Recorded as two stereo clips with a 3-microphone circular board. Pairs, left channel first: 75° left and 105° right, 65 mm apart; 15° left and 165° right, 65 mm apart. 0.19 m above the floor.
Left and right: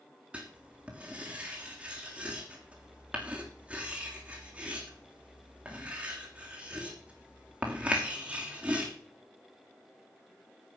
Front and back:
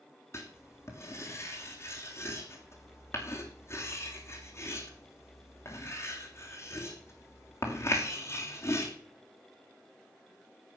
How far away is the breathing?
I don't hear breathing.